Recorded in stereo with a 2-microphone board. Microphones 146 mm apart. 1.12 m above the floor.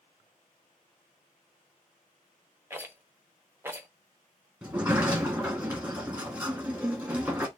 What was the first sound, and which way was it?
A rattle, 15° right (ahead or behind).